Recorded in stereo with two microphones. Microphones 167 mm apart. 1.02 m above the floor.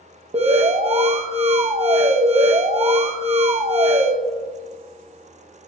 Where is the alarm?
40° right (ahead or behind), 0.8 m.